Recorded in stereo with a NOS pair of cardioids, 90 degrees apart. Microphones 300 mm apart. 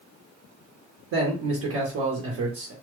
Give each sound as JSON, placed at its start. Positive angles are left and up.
{"t": 1.1, "sound": "a man speaking", "azimuth_deg": -60, "distance_m": 1.2}